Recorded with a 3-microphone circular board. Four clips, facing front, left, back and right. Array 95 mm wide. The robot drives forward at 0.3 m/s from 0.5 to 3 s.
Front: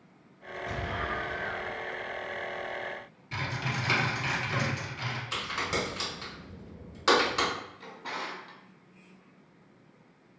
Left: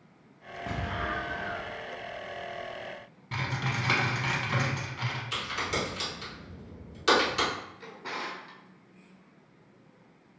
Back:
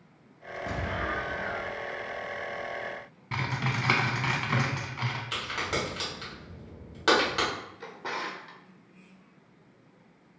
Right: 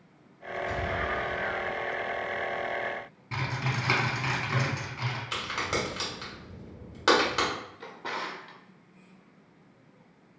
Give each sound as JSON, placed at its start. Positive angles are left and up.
{"t": 0.7, "sound": "an explosion", "azimuth_deg": 125, "distance_m": 0.5}
{"t": 3.3, "sound": "typing on a keyboard", "azimuth_deg": -175, "distance_m": 0.7}
{"t": 5.3, "sound": "a crack", "azimuth_deg": -125, "distance_m": 1.7}
{"t": 7.8, "sound": "a drawer", "azimuth_deg": -145, "distance_m": 0.5}